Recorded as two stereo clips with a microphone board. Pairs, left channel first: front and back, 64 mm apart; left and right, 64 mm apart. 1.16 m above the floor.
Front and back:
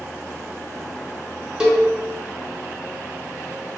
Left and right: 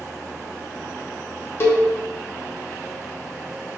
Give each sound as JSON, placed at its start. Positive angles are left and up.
{"t": 1.6, "sound": "a cowbell", "azimuth_deg": 110, "distance_m": 0.8}